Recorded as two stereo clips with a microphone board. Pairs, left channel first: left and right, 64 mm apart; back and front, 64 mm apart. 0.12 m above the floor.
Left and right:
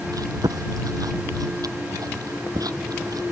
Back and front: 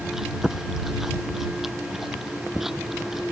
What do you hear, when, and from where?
0.1 s chewing: 85° right